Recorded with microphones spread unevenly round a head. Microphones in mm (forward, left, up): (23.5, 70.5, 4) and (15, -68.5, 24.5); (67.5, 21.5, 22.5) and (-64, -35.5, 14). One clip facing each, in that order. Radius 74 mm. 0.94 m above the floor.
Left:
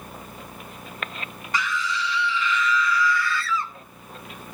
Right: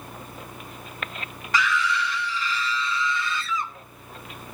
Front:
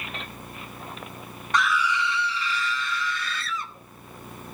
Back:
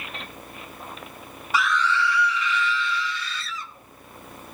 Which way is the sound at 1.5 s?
75° right.